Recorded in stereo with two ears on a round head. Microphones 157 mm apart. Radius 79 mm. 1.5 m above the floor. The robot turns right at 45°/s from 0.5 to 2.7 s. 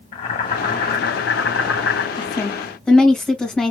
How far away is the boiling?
About 1.9 m.